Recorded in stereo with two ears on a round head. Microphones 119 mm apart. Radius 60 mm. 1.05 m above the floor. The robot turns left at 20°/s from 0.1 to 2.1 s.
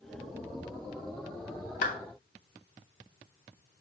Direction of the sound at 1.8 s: 70° left (ahead or behind).